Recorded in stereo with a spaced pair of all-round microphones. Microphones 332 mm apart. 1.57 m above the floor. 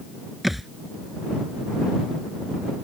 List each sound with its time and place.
0.4 s a thud: centre (ahead or behind)